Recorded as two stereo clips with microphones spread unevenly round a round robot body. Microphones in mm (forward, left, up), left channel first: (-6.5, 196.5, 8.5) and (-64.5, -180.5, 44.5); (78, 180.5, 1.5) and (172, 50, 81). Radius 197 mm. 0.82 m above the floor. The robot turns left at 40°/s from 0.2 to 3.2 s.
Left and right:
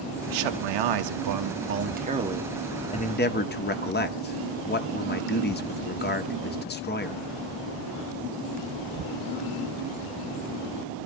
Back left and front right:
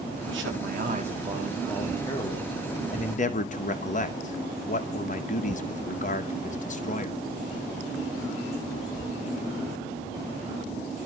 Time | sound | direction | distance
0.3 | a man speaking | 100° right | 1.8 m